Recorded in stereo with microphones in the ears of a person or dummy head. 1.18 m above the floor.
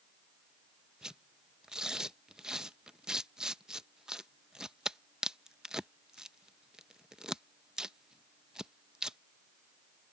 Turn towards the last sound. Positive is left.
turn(degrees=-5)  # may be behind; listen again after turning